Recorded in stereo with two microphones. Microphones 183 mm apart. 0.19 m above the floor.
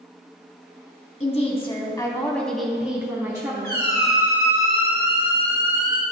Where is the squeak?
60° right (ahead or behind), 2 m.